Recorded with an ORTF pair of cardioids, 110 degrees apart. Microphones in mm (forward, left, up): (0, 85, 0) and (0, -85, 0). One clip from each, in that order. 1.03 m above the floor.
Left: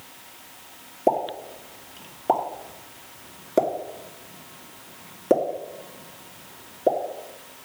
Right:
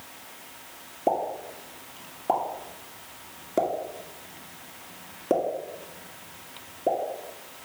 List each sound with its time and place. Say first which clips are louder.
1.1 s a pop: left 3 dB; 20° left, 2.5 m